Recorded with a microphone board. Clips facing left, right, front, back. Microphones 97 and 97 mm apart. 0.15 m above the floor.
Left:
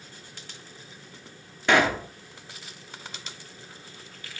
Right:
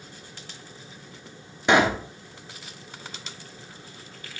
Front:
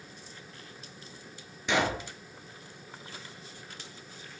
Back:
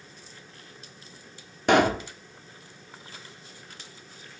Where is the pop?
160° right, 0.8 m.